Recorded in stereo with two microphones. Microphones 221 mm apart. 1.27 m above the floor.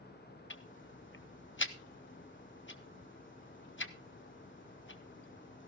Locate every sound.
0.5 s ticking: 60° left (ahead or behind), 1.0 m